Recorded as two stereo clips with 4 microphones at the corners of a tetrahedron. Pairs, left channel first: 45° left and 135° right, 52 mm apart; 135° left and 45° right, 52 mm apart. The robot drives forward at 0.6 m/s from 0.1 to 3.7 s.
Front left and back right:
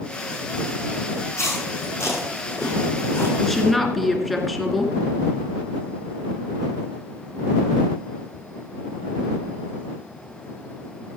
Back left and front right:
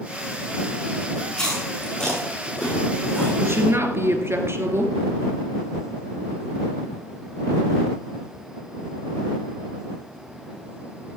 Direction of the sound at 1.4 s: 65° left.